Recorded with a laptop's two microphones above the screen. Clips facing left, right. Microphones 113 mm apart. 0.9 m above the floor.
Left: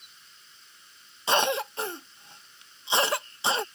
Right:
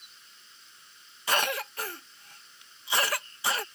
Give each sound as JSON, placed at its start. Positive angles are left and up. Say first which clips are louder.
{"t": 1.3, "sound": "a cough", "louder": "left 4 dB", "side_deg": 25}